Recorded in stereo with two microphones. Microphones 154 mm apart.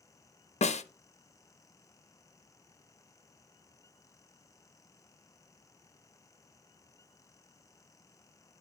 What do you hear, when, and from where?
0.6 s a snare drum: 50° left (ahead or behind), 0.5 m